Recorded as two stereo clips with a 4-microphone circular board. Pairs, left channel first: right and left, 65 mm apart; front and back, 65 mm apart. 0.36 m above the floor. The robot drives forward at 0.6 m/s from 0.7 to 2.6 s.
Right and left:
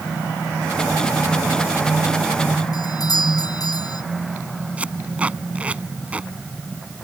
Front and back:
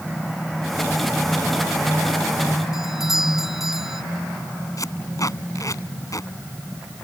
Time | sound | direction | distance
2.7 | a doorbell | 95° right | ?
4.8 | tape being pulled | 25° left | ?